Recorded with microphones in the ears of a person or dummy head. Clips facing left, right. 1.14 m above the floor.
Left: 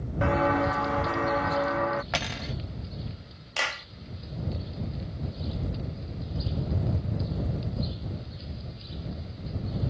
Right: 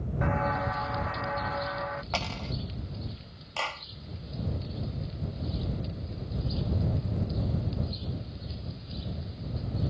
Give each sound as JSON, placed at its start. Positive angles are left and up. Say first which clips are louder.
{"t": 0.2, "sound": "footsteps", "louder": "left 6 dB", "side_deg": 55}
{"t": 2.1, "sound": "cutlery clinking", "louder": "left 1 dB", "side_deg": 20}
{"t": 3.6, "sound": "a clap", "louder": "left 1 dB", "side_deg": 25}